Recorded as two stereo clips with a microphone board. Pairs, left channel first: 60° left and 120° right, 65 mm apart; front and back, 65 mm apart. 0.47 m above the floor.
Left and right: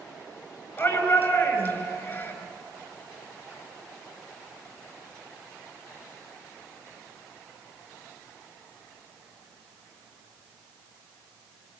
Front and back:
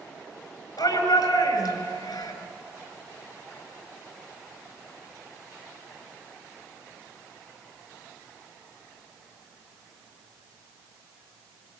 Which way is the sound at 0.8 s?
5° left.